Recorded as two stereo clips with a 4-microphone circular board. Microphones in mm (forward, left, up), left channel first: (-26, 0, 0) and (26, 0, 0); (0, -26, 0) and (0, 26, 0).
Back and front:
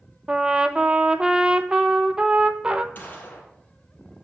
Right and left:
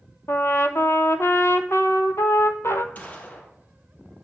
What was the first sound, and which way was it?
A trumpet, 70° right.